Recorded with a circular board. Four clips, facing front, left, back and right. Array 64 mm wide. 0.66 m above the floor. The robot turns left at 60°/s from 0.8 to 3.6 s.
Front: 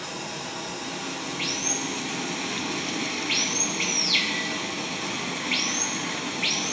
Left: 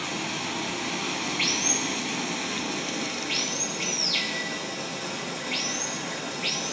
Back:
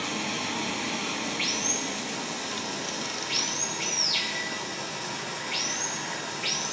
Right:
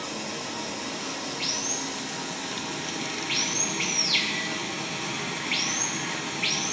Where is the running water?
135° left, 0.9 m; by 6.7 s 35° right, 0.9 m.